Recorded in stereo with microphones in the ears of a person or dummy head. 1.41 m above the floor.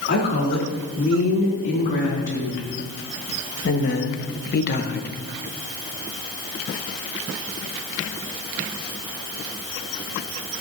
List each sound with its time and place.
0.1 s a woman speaking: 60° left (ahead or behind), 3.5 m; by 5.1 s 45° left (ahead or behind), 0.6 m